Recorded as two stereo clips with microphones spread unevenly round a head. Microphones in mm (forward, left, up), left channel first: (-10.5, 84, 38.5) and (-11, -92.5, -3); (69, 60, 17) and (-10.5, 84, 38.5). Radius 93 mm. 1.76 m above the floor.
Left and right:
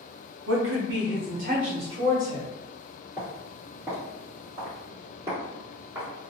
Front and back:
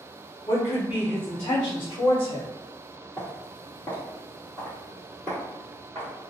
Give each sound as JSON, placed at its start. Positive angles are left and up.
{"t": 0.5, "sound": "a woman speaking", "azimuth_deg": -80, "distance_m": 0.9}
{"t": 3.2, "sound": "footsteps", "azimuth_deg": 30, "distance_m": 1.8}